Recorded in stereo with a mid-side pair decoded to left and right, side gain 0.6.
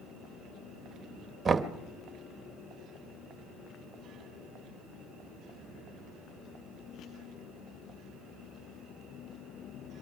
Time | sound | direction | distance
1.4 | knocking | 25° right | 1.0 m